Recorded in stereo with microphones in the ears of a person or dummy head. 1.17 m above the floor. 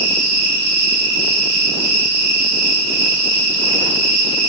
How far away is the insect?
About 1.3 m.